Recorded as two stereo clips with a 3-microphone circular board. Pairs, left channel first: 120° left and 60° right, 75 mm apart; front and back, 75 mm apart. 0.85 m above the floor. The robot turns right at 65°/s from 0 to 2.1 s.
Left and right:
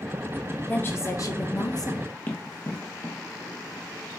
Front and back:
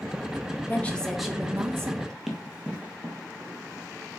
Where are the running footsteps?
105° left, 0.9 m; by 3.9 s 135° left, 1.4 m.